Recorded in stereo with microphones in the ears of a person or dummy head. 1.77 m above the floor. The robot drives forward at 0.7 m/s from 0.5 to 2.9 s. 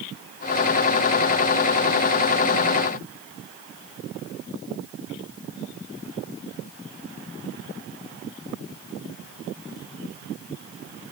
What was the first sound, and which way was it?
Only background noise.